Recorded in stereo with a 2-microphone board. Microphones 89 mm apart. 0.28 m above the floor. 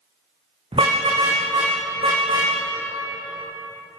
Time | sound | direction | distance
0.7 | a car horn | 85° right | 8.5 m